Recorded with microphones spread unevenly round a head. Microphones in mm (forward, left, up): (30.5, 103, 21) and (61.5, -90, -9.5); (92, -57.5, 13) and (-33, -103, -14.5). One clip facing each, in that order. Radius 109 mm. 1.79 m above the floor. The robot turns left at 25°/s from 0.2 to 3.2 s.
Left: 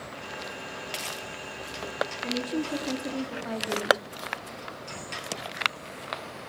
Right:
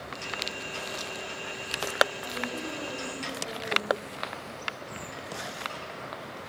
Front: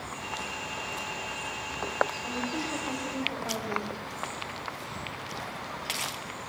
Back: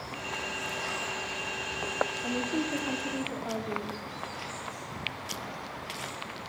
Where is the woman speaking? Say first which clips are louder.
Left 6 dB, back 3 dB; 140° left, 4 m; by 4.0 s 115° left, 4 m.